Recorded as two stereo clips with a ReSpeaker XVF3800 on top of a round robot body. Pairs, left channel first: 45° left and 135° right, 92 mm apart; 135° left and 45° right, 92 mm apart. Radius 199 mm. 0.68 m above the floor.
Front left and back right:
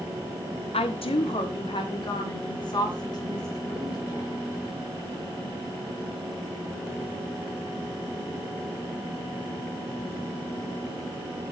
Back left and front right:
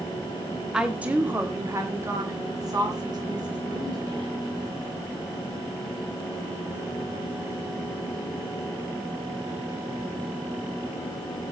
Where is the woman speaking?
40° left, 1.7 m; by 4.4 s 5° right, 5 m.